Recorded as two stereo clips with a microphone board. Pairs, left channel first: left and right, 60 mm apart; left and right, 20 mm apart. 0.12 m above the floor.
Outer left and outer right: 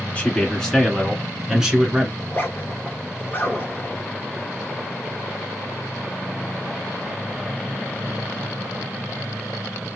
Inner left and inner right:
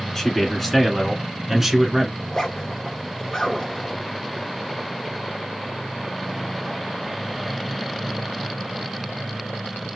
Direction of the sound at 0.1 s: 20° left (ahead or behind).